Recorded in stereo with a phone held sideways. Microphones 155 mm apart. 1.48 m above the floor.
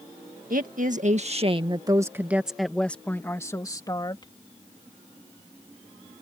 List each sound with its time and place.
0.5 s a woman speaking: 65° right (ahead or behind); by 4.3 s 30° left (ahead or behind)